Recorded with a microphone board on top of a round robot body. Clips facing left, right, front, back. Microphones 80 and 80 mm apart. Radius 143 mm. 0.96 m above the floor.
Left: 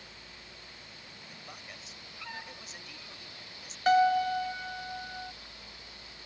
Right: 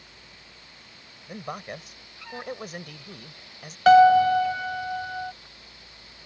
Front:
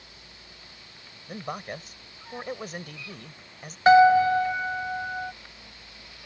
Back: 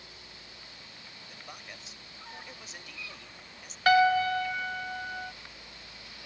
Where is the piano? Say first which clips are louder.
Right 10 dB, front 7 dB; 70° right.